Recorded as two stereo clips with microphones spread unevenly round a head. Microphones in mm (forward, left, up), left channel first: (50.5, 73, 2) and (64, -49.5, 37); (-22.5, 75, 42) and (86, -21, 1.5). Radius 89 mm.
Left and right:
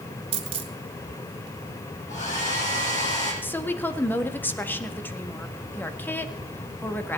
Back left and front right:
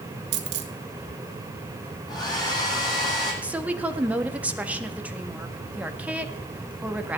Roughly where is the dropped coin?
Ahead right.